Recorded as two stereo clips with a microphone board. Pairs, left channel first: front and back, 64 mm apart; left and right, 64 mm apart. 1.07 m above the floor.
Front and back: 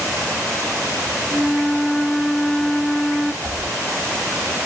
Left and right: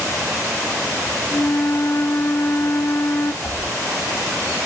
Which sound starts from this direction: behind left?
A whoosh, at 3.4 s.